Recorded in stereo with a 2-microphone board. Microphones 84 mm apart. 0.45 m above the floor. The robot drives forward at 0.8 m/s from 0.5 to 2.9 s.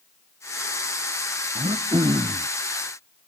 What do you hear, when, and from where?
1.6 s throat clearing: 80° right; by 2.5 s 70° right (ahead or behind)